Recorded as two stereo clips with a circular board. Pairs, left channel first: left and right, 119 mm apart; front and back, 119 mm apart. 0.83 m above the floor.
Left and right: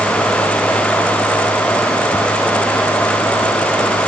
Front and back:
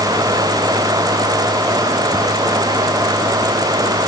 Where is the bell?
No bell in this recording.